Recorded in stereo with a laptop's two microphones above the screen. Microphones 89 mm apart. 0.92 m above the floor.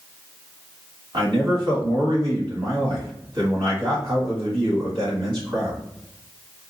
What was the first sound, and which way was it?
A man speaking, 55° right (ahead or behind).